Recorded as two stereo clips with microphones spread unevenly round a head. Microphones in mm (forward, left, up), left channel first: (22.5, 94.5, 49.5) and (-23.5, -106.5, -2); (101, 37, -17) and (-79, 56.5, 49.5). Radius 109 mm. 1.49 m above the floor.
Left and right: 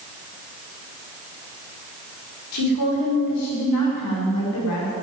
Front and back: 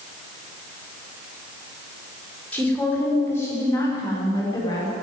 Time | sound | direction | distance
2.5 | a woman speaking | 75° left | 5.5 m